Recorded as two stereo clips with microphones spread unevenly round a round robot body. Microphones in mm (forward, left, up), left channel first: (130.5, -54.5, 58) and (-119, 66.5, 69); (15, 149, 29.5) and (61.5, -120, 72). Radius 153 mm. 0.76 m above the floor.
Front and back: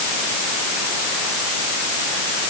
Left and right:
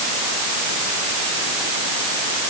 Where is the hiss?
I don't hear a hiss.